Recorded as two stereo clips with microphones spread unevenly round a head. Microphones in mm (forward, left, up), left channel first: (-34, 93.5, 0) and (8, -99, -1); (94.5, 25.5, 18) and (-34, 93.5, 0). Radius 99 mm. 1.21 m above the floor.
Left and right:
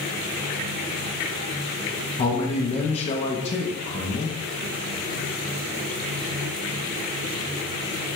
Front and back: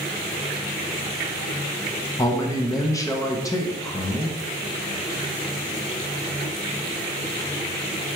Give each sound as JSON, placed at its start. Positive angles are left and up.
{"t": 2.2, "sound": "a man speaking", "azimuth_deg": 40, "distance_m": 0.7}